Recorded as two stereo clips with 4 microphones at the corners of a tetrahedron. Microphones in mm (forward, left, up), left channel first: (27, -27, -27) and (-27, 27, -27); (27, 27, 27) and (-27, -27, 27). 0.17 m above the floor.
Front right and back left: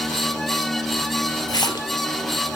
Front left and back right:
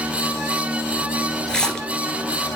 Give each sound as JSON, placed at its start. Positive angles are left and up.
{"t": 1.5, "sound": "a splash", "azimuth_deg": -35, "distance_m": 0.9}